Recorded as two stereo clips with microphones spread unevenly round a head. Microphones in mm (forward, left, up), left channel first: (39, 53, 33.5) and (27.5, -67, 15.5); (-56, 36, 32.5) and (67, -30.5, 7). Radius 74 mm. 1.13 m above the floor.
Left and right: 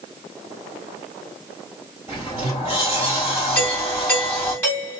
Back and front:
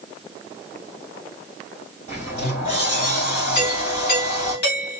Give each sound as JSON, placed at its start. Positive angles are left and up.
{"t": 2.1, "sound": "a sliding door", "azimuth_deg": -170, "distance_m": 3.0}
{"t": 3.5, "sound": "a doorbell", "azimuth_deg": 160, "distance_m": 3.0}